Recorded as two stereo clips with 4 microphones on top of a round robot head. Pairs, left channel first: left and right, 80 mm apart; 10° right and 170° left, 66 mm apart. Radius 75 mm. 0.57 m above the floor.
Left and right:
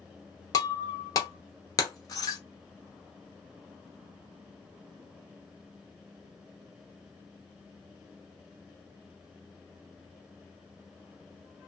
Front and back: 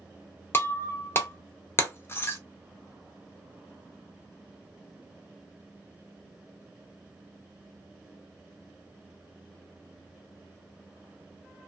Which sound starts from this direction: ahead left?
Breaking glass, at 0.5 s.